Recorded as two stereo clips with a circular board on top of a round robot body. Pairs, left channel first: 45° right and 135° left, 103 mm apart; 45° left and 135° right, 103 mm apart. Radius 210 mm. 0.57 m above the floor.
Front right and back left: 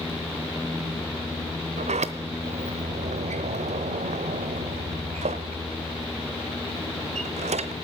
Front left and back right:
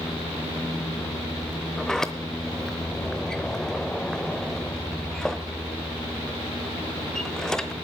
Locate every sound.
1.8 s a sliding door: 130° left, 0.8 m